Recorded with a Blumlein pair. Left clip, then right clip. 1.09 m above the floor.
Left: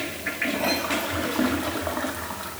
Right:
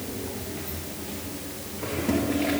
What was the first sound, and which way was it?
Only background noise.